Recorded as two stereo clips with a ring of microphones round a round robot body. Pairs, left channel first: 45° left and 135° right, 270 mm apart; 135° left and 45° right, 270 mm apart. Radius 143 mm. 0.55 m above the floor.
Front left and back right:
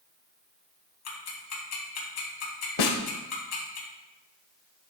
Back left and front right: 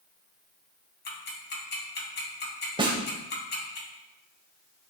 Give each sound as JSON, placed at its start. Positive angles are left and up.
{"t": 1.1, "sound": "ticking", "azimuth_deg": 80, "distance_m": 2.5}
{"t": 2.8, "sound": "a snare drum", "azimuth_deg": 30, "distance_m": 1.1}